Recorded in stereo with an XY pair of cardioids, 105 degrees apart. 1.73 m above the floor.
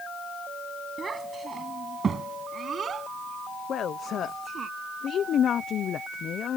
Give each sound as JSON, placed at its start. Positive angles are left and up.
{"t": 1.0, "sound": "a child speaking", "azimuth_deg": -35}
{"t": 3.7, "sound": "a woman speaking", "azimuth_deg": 60}